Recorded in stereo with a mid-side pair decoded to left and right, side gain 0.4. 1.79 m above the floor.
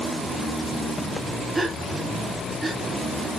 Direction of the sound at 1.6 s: 20° right.